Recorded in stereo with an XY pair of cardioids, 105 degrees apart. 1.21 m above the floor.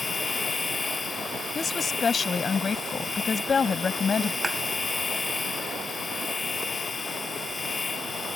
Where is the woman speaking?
35° left.